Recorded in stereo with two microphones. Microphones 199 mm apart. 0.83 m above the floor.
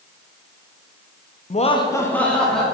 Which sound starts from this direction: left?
Laughter, at 1.5 s.